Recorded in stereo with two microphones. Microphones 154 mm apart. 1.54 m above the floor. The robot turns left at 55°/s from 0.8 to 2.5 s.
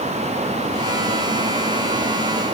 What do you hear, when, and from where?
Only background noise.